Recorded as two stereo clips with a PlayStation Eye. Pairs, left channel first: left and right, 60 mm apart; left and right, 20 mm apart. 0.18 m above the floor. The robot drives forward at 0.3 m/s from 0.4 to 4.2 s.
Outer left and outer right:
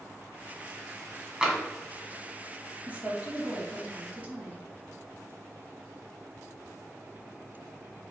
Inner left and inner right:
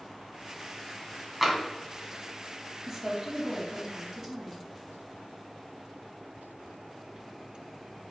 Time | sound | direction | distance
1.4 | tapping | 10° right (ahead or behind) | 1.0 m
2.9 | a woman speaking | 25° right (ahead or behind) | 1.1 m